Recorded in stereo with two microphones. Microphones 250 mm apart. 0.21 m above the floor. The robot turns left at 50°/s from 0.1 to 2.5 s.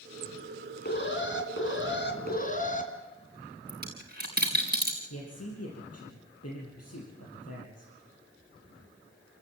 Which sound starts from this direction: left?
A man speaking, at 5.1 s.